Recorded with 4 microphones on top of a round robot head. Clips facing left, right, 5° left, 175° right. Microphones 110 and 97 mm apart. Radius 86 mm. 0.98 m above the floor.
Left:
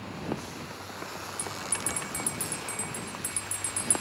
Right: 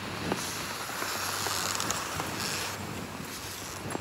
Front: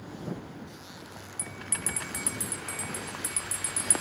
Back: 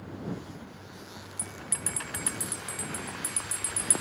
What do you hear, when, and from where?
1.4 s a bell: 110° left